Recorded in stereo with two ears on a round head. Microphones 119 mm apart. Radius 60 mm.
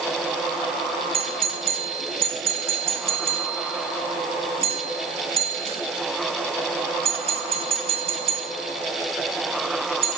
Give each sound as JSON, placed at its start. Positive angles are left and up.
{"t": 1.1, "sound": "a doorbell", "side_deg": -50, "distance_m": 6.0}